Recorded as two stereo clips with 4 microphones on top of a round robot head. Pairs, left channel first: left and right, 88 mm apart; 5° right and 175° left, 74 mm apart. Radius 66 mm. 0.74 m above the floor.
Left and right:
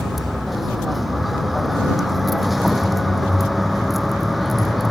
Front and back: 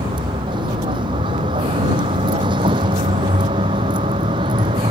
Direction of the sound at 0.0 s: Straight behind.